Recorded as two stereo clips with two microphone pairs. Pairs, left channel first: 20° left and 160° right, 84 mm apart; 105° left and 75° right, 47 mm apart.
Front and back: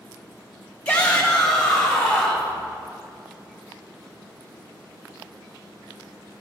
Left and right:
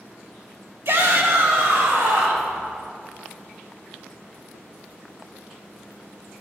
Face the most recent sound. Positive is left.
turn(degrees=-60)